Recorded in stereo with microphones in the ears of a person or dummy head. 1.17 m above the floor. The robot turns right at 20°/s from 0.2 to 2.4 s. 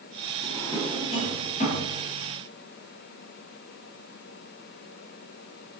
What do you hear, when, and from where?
0.4 s a drawer: 15° left (ahead or behind), 1.5 m; by 1.9 s 45° left (ahead or behind), 1.5 m